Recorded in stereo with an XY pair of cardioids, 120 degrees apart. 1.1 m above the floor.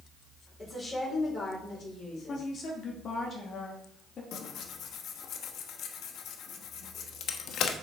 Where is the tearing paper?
65° left, 1.0 m.